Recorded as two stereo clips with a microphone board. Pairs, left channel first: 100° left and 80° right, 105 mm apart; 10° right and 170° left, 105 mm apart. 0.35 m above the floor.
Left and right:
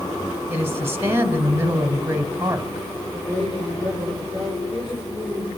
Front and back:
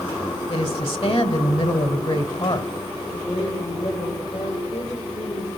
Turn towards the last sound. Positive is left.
turn(degrees=5)